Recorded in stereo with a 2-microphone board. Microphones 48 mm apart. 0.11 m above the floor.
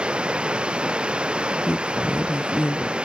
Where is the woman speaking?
40° left (ahead or behind).